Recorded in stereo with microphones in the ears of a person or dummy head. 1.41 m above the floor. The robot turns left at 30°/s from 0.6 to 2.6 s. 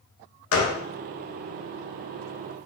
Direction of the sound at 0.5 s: 65° left (ahead or behind).